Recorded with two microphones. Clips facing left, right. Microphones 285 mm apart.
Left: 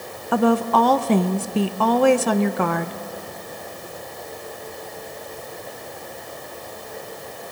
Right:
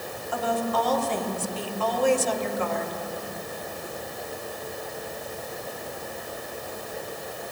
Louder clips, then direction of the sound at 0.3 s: Left 9 dB; 70° left (ahead or behind).